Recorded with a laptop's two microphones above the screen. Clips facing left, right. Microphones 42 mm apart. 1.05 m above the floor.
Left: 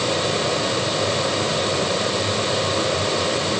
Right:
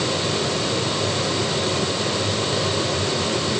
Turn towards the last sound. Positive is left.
turn(degrees=20)  # may be behind; listen again after turning